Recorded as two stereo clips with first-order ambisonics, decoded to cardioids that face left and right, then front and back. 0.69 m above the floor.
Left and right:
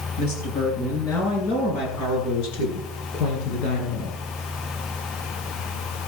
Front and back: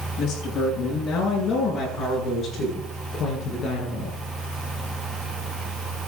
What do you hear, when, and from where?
0.2 s a woman speaking: 55° left, 10 m; by 4.2 s 65° left, 10.5 m